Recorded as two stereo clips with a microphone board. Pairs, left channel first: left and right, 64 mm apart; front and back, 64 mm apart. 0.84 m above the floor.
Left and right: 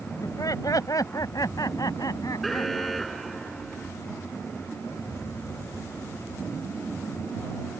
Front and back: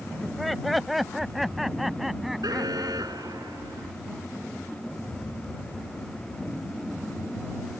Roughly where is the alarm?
Behind.